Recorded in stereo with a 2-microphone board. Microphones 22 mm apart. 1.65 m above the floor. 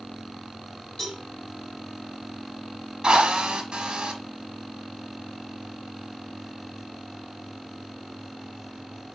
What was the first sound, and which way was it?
A cowbell, 30° left (ahead or behind).